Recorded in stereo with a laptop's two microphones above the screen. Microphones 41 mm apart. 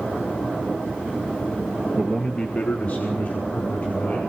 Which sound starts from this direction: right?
A man speaking, at 2.0 s.